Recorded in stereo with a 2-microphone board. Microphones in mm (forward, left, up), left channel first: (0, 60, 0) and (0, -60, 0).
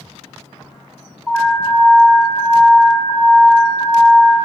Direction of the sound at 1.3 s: 15° left (ahead or behind).